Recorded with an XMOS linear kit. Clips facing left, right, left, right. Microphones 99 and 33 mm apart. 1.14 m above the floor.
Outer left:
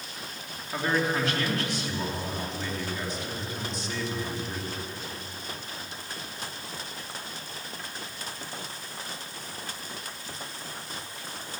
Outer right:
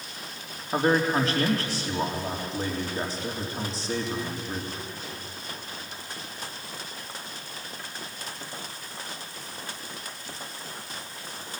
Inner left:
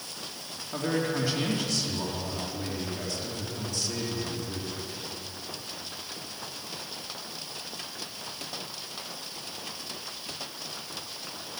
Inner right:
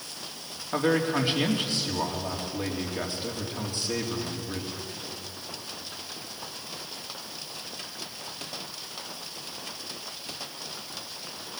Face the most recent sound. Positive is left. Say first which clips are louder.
# outer right 4 dB, inner right 4 dB
turn(degrees=-35)  # may be behind; listen again after turning